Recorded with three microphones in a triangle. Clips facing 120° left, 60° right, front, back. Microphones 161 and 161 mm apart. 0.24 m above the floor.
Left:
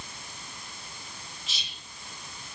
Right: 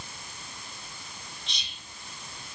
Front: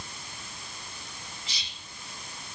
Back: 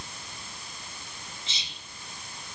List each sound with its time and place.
1.5 s whispering: 155° right, 1.3 m